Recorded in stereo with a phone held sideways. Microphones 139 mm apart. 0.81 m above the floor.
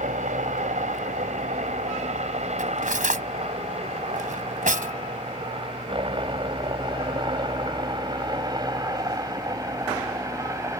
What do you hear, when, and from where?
0.0 s a helicopter: 65° right (ahead or behind); by 10.8 s 20° right (ahead or behind)
2.6 s cutlery clinking: 70° right (ahead or behind)